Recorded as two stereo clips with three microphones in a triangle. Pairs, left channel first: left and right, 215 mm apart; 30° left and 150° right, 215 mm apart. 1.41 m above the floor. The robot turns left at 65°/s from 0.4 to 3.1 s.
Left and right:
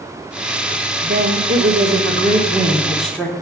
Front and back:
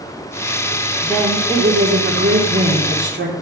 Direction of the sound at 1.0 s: 50° right.